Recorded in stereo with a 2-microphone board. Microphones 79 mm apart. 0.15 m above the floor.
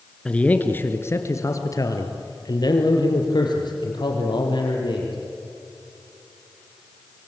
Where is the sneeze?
I don't hear a sneeze.